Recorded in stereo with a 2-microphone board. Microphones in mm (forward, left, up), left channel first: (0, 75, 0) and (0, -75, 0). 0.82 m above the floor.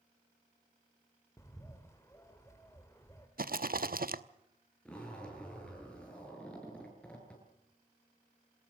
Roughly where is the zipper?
Centre.